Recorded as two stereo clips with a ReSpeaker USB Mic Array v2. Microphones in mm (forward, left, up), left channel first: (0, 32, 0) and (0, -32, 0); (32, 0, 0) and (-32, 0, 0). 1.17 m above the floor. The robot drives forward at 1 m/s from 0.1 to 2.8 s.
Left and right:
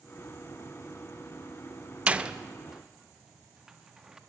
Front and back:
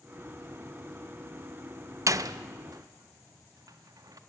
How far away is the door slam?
About 0.6 m.